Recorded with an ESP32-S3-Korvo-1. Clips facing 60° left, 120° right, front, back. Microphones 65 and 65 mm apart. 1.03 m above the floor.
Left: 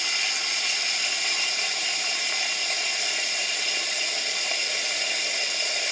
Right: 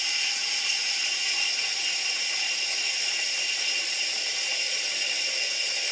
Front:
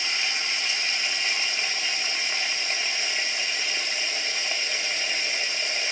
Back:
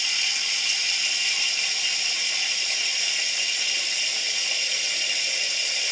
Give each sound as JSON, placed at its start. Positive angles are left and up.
{"t": 0.0, "sound": "running water", "azimuth_deg": 55, "distance_m": 0.8}